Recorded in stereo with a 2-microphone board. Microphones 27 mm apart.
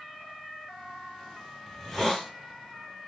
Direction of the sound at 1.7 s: 5° left (ahead or behind).